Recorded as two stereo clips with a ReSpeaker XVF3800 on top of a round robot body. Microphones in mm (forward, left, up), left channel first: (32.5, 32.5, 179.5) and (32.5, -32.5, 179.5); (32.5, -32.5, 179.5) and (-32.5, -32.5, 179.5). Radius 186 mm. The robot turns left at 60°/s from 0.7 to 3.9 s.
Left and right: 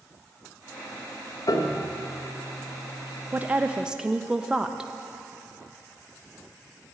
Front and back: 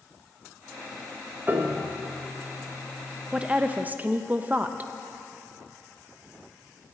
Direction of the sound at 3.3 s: 120° right.